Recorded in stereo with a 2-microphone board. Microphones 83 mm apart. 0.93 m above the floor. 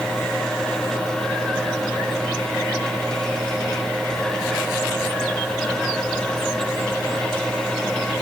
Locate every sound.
Only background noise.